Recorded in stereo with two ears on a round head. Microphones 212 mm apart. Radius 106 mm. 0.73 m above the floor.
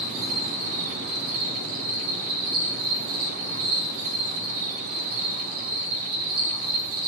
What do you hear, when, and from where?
0.0 s an insect: 60° right (ahead or behind), 7 m